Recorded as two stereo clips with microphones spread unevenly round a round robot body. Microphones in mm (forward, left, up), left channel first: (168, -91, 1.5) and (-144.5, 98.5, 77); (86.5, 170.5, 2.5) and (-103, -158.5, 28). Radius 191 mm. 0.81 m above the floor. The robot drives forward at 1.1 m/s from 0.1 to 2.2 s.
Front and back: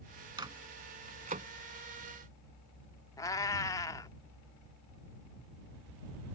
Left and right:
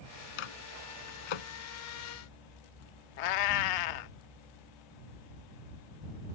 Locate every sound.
0.4 s a microwave: 70° left; by 1.5 s 80° left
3.2 s a cat meowing: 50° left